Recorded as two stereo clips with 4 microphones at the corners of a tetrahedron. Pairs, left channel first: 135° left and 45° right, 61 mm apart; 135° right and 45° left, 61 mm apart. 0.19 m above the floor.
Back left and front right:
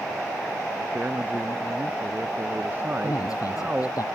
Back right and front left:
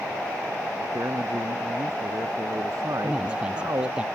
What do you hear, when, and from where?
0.9 s a man speaking: 15° left
3.0 s a man speaking: 120° left